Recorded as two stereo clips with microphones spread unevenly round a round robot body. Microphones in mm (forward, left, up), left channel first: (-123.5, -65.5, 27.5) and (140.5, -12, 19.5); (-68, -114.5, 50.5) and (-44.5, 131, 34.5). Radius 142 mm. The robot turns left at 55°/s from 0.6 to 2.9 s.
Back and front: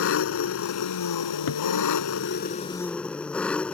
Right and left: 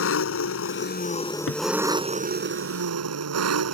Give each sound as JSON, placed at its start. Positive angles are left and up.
{"t": 0.0, "sound": "an engine running", "azimuth_deg": -130}
{"t": 1.5, "sound": "a cupboard door", "azimuth_deg": -135}